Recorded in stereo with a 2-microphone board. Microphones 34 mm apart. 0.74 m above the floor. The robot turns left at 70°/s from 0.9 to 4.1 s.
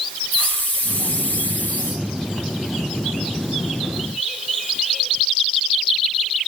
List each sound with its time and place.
0.3 s a hiss: 125° left, 4.5 m; by 2.0 s 45° left, 4.5 m